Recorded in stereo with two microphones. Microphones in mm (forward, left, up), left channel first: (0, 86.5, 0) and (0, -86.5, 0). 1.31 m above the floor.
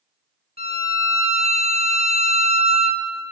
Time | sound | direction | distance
0.6 | a violin | 60° left (ahead or behind) | 0.5 m